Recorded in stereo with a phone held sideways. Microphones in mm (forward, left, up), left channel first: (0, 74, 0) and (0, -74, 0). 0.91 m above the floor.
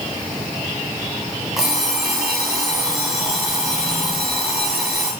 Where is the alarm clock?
Centre (ahead or behind), 3 m.